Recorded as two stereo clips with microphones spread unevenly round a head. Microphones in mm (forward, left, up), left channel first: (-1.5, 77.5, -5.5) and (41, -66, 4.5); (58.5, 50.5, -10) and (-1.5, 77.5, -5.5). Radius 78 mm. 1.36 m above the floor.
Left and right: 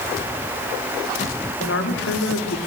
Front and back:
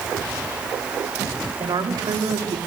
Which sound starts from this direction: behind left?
A woman speaking, at 1.6 s.